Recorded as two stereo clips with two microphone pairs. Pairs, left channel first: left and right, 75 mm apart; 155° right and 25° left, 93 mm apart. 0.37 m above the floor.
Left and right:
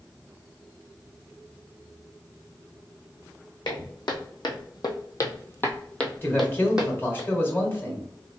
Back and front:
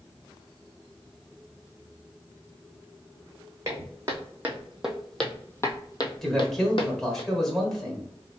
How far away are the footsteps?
About 1.4 m.